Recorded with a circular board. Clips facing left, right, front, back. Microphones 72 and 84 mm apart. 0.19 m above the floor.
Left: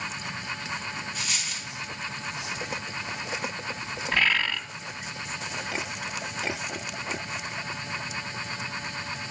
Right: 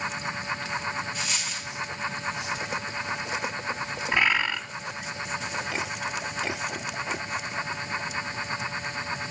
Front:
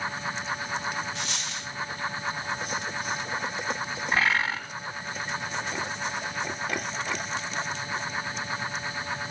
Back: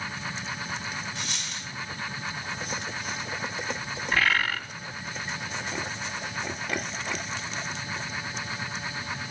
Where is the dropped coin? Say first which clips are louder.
Right 2 dB, front 2 dB; straight ahead, 4.5 m.